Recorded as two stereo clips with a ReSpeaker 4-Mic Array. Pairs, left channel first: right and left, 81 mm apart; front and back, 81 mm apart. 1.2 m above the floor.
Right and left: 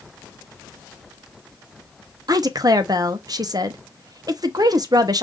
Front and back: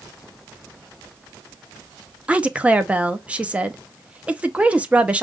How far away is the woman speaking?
About 0.7 m.